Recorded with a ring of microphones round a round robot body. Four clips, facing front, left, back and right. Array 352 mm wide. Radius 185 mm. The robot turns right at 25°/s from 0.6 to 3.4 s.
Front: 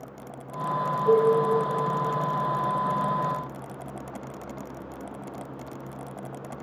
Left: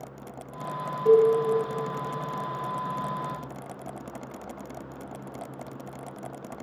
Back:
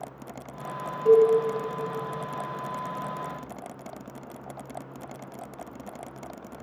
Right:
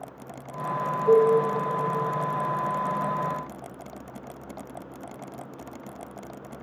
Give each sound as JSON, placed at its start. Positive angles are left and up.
{"t": 1.1, "sound": "a cowbell", "azimuth_deg": 125, "distance_m": 2.5}